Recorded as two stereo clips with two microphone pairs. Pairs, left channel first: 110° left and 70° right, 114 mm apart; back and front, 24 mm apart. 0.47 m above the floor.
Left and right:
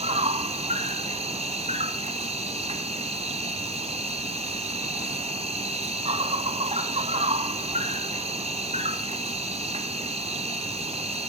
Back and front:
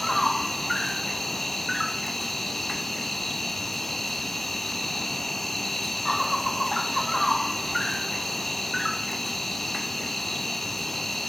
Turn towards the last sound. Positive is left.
turn(degrees=-95)